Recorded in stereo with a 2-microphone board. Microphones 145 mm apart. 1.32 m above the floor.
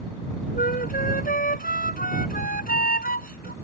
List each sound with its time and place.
0.6 s a flute: 85° left